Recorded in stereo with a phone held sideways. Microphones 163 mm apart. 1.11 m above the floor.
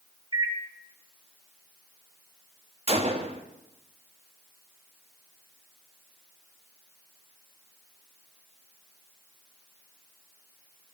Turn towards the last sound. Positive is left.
turn(degrees=-35)  # may be behind; listen again after turning